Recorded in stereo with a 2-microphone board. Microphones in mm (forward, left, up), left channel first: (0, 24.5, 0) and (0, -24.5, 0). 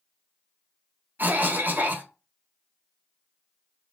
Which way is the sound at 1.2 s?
40° right (ahead or behind).